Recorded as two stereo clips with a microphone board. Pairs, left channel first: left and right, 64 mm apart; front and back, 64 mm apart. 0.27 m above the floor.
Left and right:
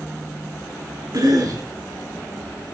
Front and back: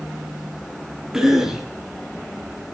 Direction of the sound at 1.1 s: 100° right.